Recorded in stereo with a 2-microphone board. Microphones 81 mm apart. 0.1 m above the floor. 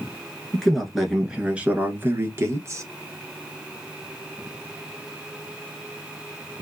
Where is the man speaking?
10° left (ahead or behind), 1.2 m; by 2.9 s 40° right (ahead or behind), 1.3 m.